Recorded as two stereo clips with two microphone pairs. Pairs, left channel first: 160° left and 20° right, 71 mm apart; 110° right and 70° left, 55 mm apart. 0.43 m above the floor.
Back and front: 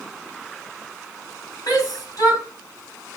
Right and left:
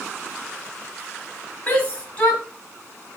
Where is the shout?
175° right, 3 m.